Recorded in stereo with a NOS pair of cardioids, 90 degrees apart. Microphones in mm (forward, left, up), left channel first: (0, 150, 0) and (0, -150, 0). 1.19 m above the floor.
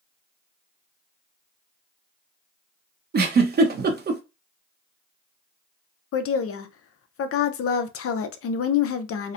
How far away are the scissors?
No scissors in this recording.